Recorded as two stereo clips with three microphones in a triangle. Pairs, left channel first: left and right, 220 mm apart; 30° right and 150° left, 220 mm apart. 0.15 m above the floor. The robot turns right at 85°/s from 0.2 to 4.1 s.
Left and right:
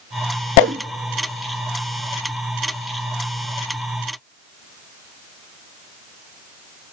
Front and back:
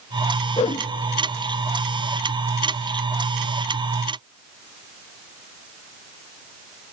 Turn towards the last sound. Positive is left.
turn(degrees=-155)